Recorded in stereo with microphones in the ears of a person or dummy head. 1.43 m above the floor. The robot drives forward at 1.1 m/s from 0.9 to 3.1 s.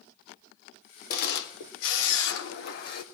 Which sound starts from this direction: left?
A camera shutter, at 1.1 s.